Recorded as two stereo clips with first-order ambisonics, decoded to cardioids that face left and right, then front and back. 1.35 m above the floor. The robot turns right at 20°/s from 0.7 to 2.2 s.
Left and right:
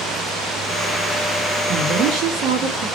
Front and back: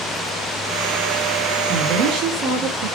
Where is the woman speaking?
140° right, 1.7 m; by 2.9 s 130° right, 1.7 m.